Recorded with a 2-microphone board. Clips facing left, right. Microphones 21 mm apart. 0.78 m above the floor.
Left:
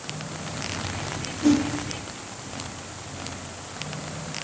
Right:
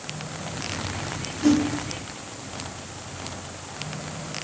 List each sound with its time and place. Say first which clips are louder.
1.4 s a whoosh: even; 15° right (ahead or behind), 1.1 m